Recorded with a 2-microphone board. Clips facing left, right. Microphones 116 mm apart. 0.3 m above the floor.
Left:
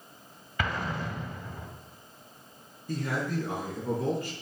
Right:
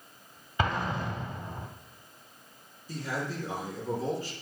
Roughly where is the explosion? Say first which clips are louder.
Right 2 dB; right.